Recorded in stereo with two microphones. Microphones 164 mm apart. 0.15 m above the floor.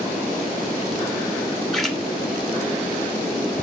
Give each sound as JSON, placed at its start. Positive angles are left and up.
{"t": 1.7, "sound": "a splash", "side_deg": 0, "distance_m": 2.0}